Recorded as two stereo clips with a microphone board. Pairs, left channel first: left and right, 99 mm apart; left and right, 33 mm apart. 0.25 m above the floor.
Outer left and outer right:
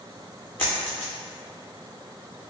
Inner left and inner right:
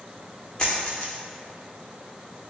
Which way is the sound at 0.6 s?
20° left (ahead or behind).